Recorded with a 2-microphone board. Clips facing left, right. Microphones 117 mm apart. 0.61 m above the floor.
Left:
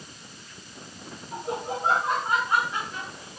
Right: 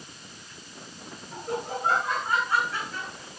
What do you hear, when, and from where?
1.3 s laughter: 25° left (ahead or behind), 3 m; by 3.4 s 15° left (ahead or behind), 4 m